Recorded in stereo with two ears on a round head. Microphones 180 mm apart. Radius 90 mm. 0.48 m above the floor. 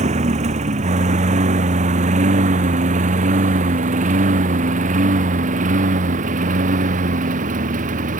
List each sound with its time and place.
0.0 s a lawn mower: 35° right (ahead or behind); by 8.2 s 40° right (ahead or behind)